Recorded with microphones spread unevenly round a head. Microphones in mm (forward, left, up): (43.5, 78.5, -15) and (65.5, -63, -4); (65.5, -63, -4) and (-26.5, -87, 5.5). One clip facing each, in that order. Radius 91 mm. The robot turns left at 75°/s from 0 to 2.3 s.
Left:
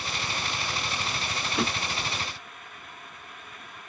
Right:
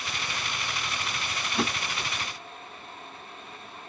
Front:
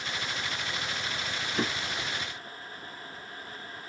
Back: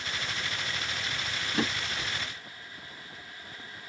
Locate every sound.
1.5 s a drawer: straight behind, 2.5 m; by 2.1 s 140° left, 2.5 m